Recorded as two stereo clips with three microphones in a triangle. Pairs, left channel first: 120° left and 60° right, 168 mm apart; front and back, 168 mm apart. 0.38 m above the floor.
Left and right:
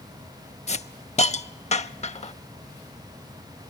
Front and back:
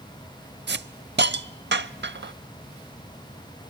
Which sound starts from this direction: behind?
A hiss, at 0.7 s.